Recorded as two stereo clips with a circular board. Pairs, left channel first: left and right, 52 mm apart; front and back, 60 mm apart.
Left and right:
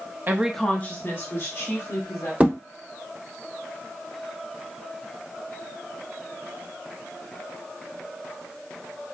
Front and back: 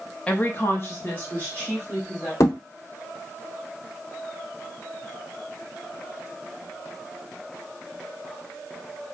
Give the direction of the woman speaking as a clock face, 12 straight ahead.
2 o'clock.